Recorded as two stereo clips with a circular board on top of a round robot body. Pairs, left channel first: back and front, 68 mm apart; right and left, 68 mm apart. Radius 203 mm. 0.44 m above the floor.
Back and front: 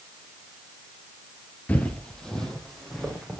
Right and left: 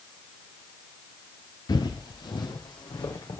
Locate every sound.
1.7 s footsteps: 110° right, 0.7 m; by 3.4 s 95° right, 3 m